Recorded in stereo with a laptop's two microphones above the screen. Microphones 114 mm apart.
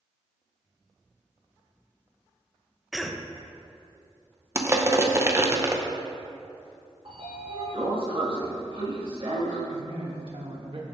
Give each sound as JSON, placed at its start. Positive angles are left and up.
{"t": 2.9, "sound": "a cough", "side_deg": 0, "distance_m": 0.5}
{"t": 4.5, "sound": "crushing", "side_deg": -25, "distance_m": 0.6}
{"t": 7.0, "sound": "a sliding door", "side_deg": -50, "distance_m": 1.8}
{"t": 9.7, "sound": "a man speaking", "side_deg": -55, "distance_m": 1.8}